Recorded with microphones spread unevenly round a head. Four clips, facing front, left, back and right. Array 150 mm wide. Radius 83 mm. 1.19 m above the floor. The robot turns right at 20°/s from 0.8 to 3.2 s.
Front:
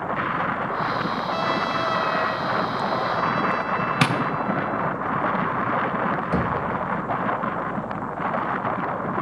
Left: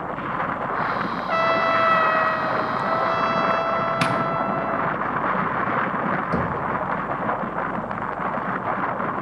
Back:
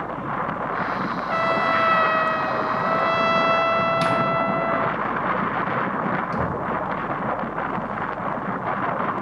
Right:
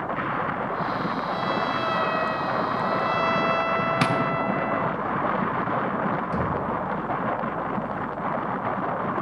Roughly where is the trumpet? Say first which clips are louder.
Left 8 dB, back 5 dB; left.